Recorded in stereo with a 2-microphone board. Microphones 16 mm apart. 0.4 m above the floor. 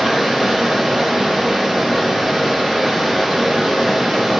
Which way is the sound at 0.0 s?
70° right (ahead or behind).